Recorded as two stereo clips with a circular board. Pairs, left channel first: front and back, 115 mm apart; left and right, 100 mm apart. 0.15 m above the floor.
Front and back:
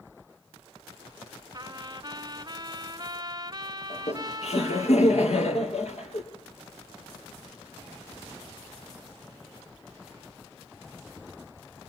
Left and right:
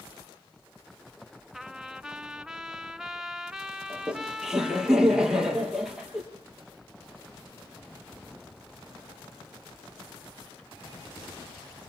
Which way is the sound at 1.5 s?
170° right.